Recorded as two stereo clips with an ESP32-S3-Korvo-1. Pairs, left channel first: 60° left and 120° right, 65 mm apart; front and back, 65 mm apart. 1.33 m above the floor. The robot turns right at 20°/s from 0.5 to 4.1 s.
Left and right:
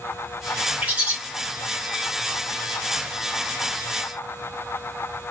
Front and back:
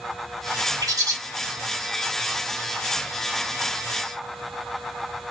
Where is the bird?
170° left, 1.5 m; by 1.1 s 175° left, 1.5 m.